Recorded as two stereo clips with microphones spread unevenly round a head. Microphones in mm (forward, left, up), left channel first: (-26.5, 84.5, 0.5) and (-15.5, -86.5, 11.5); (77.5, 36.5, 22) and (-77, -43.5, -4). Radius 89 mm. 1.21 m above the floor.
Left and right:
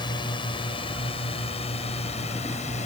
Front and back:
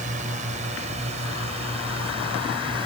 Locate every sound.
0.0 s a drone: 155° left; by 2.9 s 145° left